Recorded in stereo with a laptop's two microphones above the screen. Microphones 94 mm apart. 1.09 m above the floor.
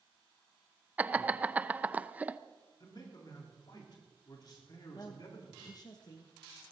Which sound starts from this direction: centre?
Laughter, at 1.0 s.